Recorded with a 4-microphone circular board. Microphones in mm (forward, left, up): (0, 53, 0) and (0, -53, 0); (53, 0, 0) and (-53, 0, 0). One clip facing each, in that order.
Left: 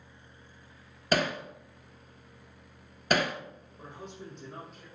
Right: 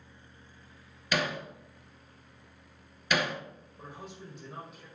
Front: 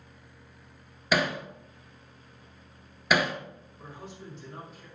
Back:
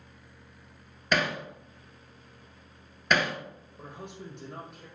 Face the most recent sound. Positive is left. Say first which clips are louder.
# left 1 dB, back 2 dB
turn(degrees=-175)